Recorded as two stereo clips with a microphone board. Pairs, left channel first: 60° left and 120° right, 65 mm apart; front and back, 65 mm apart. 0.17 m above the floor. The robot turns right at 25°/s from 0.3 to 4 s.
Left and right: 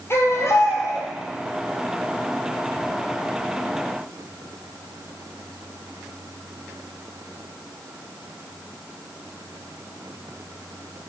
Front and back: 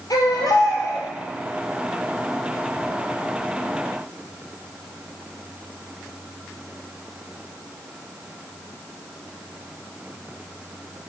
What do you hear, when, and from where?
0.1 s a baby crying: 15° left, 2 m; by 1.1 s 35° left, 2 m